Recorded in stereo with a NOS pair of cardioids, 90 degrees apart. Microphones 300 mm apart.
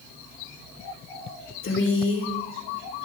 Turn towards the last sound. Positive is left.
turn(degrees=45)